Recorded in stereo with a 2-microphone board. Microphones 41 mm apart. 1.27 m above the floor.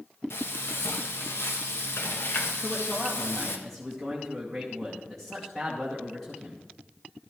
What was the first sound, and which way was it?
Frying, 70° left (ahead or behind).